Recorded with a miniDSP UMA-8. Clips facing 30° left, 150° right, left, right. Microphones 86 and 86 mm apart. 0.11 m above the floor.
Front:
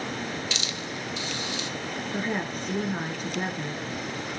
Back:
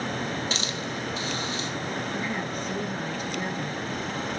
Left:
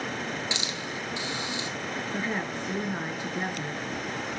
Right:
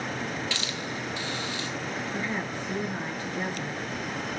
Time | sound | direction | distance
0.5 | a hiss | 160° left | 1.6 m
2.1 | a woman speaking | 30° left | 1.3 m